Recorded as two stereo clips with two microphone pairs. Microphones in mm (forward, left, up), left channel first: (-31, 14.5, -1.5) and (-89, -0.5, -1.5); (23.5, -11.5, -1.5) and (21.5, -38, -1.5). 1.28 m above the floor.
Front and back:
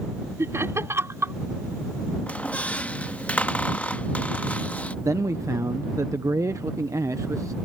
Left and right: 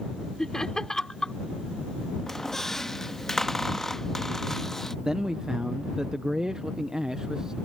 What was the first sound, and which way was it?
Laughter, 150° left.